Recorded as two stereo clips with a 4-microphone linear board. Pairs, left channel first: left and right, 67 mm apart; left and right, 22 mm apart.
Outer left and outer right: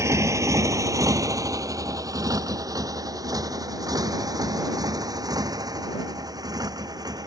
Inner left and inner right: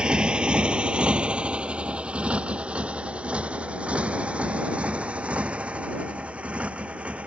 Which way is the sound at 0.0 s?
45° right (ahead or behind).